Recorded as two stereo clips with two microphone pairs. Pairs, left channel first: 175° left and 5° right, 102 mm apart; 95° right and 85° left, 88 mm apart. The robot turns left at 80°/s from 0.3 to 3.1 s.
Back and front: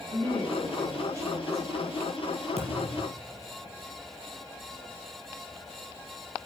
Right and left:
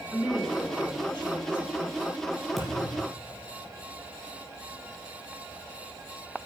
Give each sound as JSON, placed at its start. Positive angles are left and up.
{"t": 0.1, "sound": "a woman speaking", "azimuth_deg": 0, "distance_m": 6.0}
{"t": 2.6, "sound": "a thud", "azimuth_deg": -5, "distance_m": 3.5}